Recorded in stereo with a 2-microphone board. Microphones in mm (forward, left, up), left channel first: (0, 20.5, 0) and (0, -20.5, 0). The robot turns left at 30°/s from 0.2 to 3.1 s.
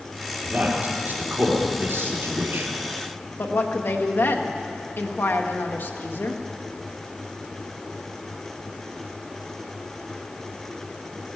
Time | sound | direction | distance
0.4 | a man speaking | 30° right (ahead or behind) | 3 m
3.4 | a woman speaking | 60° left (ahead or behind) | 1.3 m